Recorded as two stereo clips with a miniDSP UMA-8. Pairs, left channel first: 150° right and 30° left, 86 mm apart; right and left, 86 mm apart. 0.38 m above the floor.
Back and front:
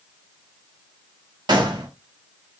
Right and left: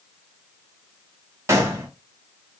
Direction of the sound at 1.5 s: 40° left.